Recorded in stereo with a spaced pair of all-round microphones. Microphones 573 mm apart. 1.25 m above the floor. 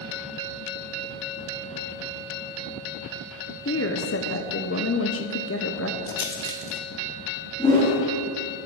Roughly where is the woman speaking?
Left.